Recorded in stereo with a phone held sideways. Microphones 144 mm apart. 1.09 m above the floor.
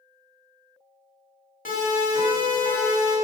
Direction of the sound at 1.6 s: 90° left.